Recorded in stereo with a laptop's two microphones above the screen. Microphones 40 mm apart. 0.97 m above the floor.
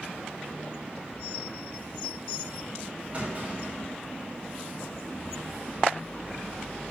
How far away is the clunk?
About 3.5 m.